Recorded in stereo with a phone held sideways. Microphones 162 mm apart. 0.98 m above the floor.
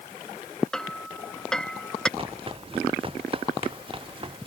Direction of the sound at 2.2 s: 35° right (ahead or behind).